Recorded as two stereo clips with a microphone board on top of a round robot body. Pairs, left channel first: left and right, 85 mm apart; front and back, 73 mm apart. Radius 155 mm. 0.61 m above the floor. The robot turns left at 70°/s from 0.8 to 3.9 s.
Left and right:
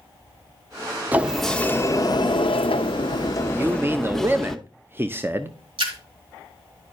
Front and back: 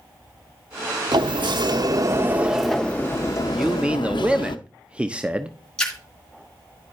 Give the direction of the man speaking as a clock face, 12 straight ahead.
3 o'clock.